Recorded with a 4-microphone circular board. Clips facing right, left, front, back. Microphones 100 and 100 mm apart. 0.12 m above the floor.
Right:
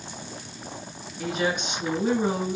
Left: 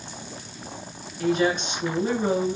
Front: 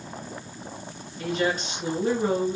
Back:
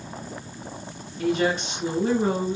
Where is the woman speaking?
150° right, 1.5 m.